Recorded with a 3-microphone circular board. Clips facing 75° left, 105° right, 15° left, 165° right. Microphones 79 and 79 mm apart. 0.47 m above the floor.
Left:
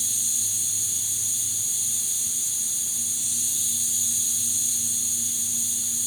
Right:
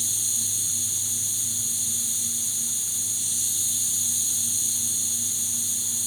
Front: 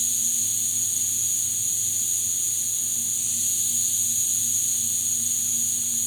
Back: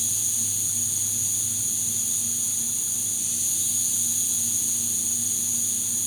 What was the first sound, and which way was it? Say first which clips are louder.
An insect: right 1 dB, back 1 dB; 80° right.